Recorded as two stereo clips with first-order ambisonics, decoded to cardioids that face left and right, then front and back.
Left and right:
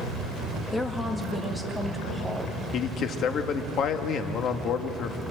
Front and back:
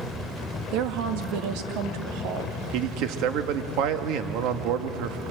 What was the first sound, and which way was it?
A woman speaking, 165° left.